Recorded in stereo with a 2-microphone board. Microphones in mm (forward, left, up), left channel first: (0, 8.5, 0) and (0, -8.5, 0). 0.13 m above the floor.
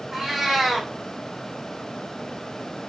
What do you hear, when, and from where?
0.1 s a cat meowing: 20° right (ahead or behind), 1.9 m